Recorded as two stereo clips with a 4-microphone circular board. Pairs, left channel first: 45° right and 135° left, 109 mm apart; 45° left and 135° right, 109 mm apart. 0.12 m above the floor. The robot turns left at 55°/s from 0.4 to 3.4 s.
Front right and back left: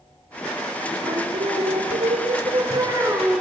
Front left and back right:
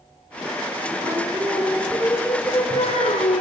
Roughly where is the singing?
Behind.